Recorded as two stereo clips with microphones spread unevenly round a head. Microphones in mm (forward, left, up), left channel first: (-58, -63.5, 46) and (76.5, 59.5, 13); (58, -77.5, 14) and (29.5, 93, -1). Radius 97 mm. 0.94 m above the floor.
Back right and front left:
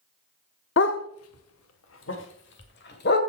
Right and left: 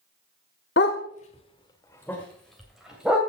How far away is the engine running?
I don't hear an engine running.